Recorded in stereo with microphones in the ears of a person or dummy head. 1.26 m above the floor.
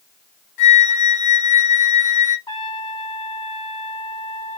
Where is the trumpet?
25° left (ahead or behind), 1.0 m.